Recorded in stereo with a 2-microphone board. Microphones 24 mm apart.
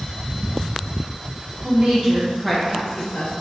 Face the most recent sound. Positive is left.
turn(degrees=55)  # may be behind; listen again after turning